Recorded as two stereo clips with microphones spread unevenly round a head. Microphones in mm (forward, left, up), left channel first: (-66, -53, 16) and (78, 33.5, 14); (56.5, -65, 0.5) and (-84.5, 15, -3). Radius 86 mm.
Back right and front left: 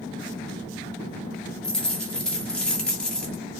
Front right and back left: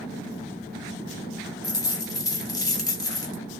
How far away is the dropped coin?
About 1.3 m.